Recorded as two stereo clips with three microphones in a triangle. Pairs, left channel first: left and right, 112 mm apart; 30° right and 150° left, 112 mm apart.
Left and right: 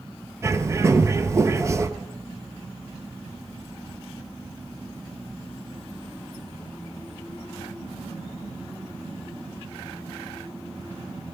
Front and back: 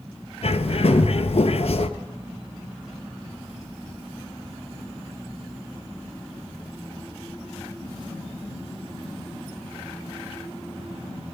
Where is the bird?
30° right, 0.7 m.